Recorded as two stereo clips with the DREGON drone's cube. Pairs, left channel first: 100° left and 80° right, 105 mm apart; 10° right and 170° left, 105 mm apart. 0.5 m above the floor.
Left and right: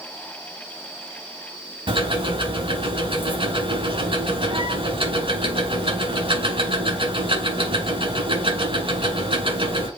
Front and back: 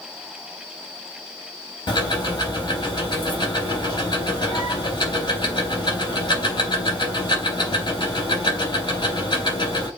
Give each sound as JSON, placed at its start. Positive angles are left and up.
{"t": 1.9, "sound": "ticking", "azimuth_deg": -55, "distance_m": 3.5}